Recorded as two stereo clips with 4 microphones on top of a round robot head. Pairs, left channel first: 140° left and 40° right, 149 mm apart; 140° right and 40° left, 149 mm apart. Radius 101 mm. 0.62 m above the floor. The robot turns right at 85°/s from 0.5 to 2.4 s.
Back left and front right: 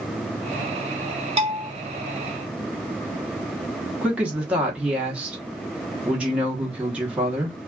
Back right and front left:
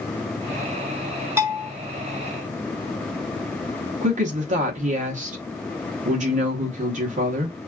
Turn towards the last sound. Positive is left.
turn(degrees=40)